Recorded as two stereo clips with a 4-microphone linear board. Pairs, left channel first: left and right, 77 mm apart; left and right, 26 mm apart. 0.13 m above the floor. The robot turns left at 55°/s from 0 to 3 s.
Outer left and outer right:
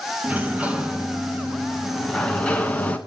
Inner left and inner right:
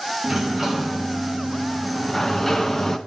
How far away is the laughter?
I don't hear laughter.